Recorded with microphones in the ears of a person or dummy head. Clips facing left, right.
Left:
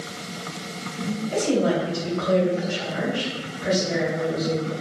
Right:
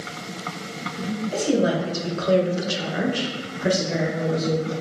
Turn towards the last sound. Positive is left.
turn(degrees=-55)  # may be behind; listen again after turning